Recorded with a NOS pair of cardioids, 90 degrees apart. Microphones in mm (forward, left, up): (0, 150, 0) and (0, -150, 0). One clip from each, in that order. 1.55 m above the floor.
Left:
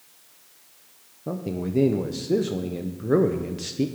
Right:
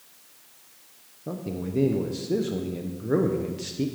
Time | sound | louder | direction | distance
1.3 | a man speaking | left 3 dB | 20° left | 0.7 m